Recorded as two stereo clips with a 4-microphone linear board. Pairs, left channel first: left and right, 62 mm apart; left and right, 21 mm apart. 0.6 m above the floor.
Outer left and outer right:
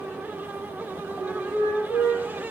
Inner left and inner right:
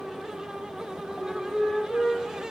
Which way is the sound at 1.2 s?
70° left (ahead or behind).